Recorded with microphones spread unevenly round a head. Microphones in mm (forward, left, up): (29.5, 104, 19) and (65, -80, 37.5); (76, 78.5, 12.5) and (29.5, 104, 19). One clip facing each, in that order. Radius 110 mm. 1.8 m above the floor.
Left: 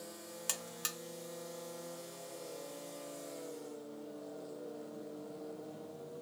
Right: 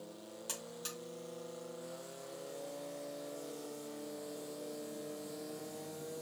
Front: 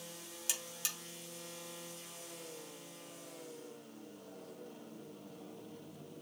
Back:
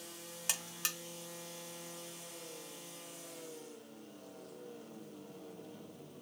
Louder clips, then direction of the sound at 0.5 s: Right 1 dB, back 3 dB; 130° left.